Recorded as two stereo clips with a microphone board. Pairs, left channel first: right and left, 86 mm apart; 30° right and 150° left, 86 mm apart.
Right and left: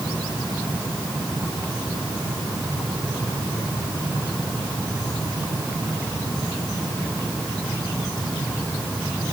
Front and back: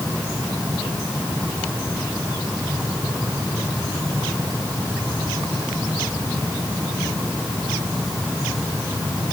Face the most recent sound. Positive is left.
No sound to turn to.